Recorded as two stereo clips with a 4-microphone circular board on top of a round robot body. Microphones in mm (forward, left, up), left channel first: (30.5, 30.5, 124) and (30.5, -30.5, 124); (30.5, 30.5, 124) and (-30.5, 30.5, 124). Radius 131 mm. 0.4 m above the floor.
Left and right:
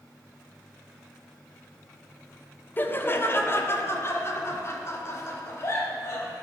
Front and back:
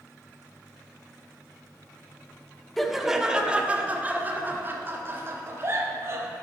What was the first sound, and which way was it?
Laughter, 85° left.